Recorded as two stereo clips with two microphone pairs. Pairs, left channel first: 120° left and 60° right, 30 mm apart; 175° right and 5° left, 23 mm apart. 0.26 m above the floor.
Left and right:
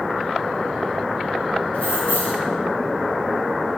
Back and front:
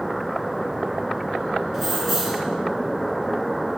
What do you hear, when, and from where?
1.7 s keys jangling: 90° left, 2 m